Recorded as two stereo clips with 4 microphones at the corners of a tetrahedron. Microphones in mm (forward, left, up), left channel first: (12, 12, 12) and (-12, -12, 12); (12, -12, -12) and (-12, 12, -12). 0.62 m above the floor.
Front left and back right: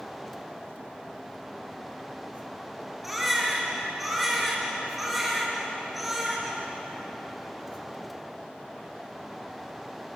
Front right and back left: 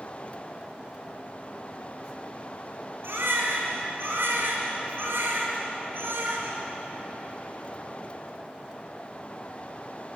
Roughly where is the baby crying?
Behind left.